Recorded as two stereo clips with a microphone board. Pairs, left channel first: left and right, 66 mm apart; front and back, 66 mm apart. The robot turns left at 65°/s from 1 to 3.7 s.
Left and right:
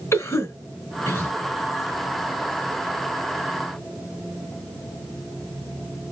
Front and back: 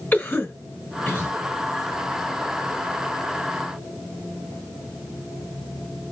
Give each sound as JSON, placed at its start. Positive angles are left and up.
{"t": 0.1, "sound": "a cough", "azimuth_deg": 60, "distance_m": 2.5}